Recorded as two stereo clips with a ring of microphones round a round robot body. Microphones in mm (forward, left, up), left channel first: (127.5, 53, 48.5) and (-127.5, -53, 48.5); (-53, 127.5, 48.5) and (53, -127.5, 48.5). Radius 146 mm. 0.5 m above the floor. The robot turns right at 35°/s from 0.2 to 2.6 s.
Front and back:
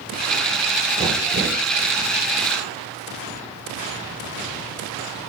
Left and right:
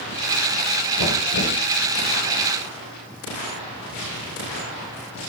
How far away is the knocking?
About 8.5 m.